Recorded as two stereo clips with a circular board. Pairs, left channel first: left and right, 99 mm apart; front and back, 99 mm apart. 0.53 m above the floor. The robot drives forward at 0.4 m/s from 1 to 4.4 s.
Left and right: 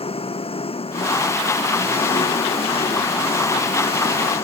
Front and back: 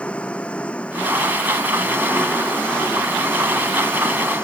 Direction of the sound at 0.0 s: 80° left.